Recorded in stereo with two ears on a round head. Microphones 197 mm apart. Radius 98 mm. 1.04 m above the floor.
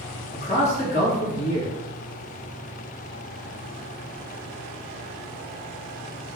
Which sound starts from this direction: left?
A man speaking, at 0.3 s.